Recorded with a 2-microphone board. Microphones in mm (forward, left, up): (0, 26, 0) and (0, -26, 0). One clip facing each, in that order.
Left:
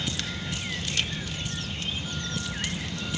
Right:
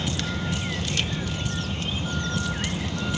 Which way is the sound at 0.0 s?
30° right (ahead or behind).